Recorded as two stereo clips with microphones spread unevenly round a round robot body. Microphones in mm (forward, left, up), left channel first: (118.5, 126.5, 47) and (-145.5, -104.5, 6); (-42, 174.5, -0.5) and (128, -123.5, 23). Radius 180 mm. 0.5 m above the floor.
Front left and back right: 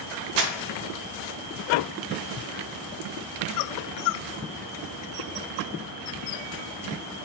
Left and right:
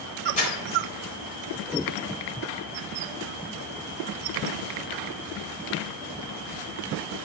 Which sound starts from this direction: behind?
Crumpling, at 0.4 s.